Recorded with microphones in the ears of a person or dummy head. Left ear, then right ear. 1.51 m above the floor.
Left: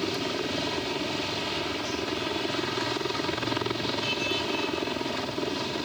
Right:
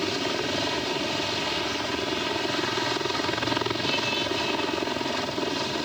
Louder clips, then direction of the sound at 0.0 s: Right 3 dB; 10° right (ahead or behind).